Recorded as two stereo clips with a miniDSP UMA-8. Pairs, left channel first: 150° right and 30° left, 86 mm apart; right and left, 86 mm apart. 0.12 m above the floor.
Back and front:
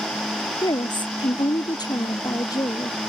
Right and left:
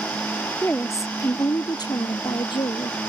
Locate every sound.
0.6 s a woman speaking: 150° right; by 3.0 s 105° right